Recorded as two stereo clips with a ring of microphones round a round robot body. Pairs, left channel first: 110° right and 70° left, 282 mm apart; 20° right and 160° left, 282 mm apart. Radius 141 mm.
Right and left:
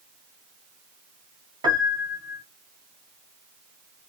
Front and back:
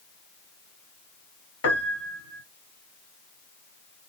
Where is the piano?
5° right, 1.0 m.